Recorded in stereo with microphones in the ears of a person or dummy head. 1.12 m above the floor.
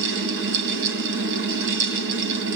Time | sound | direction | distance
0.0 | a fan | 65° right (ahead or behind) | 1.8 m